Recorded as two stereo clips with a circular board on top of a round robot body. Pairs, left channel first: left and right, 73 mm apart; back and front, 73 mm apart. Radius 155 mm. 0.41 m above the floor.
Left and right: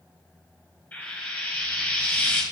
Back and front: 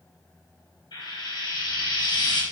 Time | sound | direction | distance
0.9 | frying | 160° left | 4.5 m